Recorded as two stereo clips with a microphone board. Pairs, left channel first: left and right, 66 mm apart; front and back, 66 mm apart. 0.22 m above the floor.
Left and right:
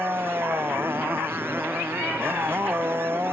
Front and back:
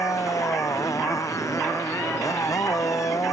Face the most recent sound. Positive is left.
turn(degrees=-35)